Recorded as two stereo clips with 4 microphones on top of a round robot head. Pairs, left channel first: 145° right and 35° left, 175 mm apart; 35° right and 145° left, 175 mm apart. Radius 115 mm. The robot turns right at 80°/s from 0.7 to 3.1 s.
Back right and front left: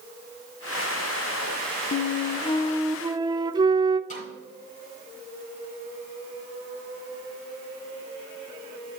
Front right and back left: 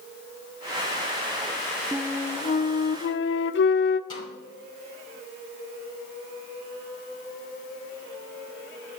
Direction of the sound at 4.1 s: 100° right.